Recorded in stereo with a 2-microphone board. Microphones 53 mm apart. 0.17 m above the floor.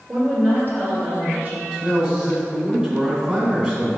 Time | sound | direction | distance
0.1 | a woman speaking | 40° right (ahead or behind) | 2 m
1.7 | a man speaking | 20° right (ahead or behind) | 1.6 m